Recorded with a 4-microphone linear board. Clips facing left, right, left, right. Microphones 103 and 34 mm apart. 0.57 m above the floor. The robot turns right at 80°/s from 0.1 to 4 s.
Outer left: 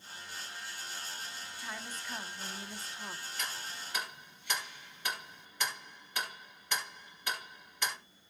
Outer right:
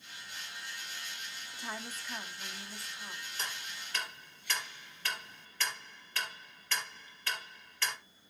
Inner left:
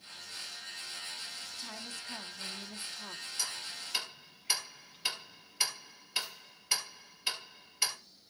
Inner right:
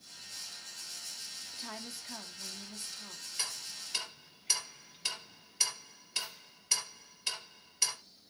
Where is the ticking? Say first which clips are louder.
Even, inner right 1 dB; 35° right (ahead or behind), 3.5 m; by 8.0 s 15° left (ahead or behind), 3.5 m.